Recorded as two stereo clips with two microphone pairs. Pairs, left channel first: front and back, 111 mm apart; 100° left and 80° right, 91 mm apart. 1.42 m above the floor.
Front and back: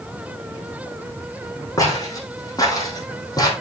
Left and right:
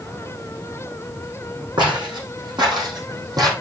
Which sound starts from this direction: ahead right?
Footsteps, at 1.8 s.